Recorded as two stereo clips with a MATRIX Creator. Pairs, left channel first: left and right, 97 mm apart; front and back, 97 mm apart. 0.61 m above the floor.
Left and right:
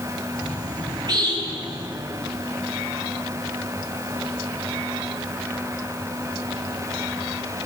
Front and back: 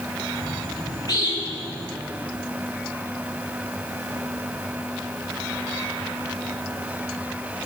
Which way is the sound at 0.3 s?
45° right.